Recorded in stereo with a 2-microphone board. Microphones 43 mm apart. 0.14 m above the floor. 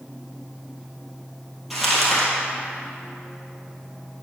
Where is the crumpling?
5° right (ahead or behind), 2.5 m.